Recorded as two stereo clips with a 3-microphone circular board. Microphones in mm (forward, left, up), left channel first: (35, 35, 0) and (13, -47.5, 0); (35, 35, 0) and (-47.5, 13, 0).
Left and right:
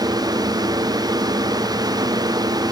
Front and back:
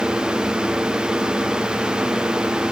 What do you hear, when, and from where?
Only background noise.